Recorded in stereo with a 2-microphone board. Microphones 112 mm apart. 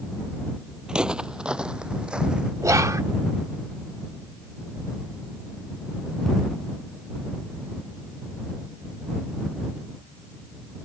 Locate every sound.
0.9 s footsteps: 10° right (ahead or behind)
2.6 s whispering: 30° right (ahead or behind)